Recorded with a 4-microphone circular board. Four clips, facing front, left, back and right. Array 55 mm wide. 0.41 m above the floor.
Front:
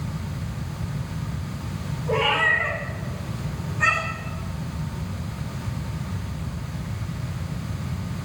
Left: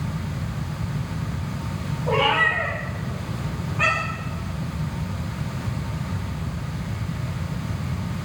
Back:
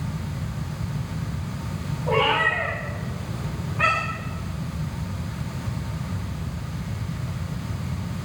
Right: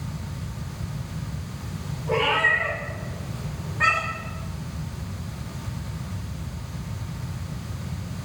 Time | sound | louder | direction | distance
2.1 | a cat meowing | left 1 dB, even | 125° left | 9 m